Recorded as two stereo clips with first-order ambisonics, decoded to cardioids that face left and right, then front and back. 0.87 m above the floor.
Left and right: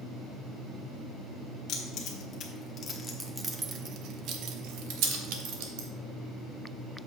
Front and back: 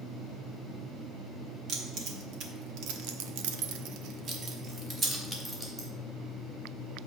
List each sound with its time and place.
1.7 s keys jangling: 130° left, 1.6 m; by 5.9 s 100° right, 2.0 m